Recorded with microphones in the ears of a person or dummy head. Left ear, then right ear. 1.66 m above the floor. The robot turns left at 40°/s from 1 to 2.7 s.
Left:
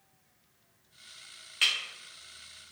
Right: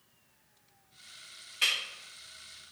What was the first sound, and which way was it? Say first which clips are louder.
Breaking glass: left 2 dB; 25° left (ahead or behind).